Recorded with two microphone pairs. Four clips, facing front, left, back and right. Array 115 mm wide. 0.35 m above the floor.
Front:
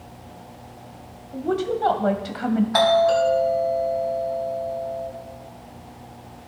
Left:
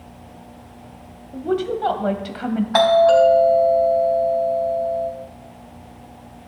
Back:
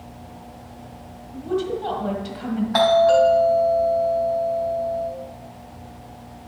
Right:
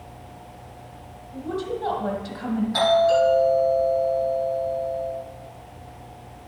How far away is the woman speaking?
About 1.6 m.